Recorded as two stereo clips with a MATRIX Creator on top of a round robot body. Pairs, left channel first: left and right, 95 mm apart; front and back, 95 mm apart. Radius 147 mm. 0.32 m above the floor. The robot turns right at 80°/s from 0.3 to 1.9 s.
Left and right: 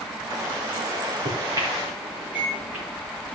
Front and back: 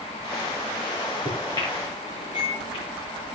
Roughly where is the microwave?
Right.